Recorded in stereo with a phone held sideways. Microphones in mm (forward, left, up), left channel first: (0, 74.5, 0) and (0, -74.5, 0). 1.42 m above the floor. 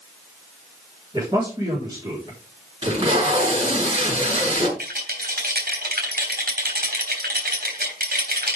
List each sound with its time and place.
1.1 s a man speaking: 30° right (ahead or behind), 4.5 m
2.8 s tape being pulled: 40° right (ahead or behind), 5.5 m
4.8 s a rattle: 75° right (ahead or behind), 3.5 m